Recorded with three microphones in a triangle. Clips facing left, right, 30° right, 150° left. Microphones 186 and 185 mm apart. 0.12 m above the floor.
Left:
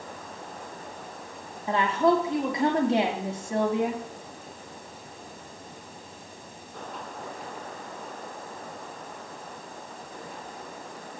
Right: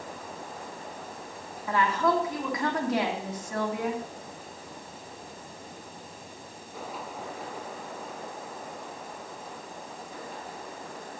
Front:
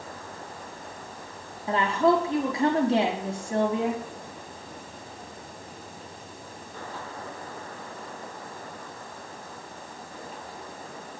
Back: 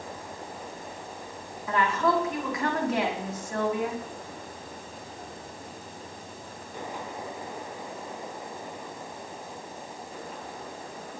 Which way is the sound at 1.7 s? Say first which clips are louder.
Left 3 dB, front 3 dB; 30° left.